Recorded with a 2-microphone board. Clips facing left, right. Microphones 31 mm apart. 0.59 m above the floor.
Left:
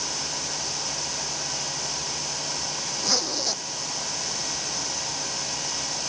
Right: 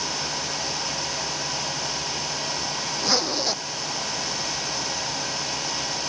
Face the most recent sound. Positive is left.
turn(degrees=-20)  # may be behind; listen again after turning